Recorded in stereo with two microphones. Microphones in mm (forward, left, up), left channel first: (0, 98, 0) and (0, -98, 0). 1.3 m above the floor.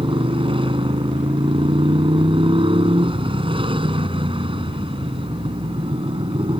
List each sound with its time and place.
0.0 s a motorcycle: 25° right (ahead or behind)